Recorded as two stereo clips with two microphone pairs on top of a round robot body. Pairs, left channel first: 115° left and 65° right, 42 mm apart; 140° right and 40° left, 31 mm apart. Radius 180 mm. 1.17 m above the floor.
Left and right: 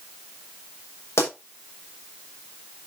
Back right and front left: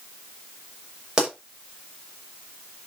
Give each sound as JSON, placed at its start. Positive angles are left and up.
{"t": 1.2, "sound": "a pop", "azimuth_deg": 115, "distance_m": 5.5}